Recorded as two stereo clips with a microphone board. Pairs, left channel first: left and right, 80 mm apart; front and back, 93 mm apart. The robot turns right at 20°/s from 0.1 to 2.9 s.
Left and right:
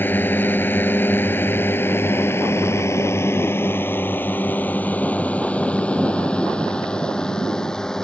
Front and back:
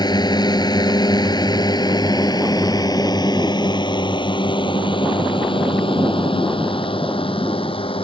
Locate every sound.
0.0 s a drone: 30° left; by 8.1 s 10° left